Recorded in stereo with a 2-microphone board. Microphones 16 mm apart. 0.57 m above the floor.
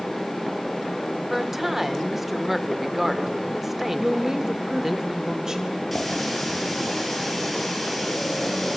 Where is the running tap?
5° left (ahead or behind), 7.5 m.